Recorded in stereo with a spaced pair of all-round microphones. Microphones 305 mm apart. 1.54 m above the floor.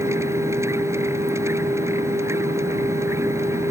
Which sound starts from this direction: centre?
A machine running, at 0.0 s.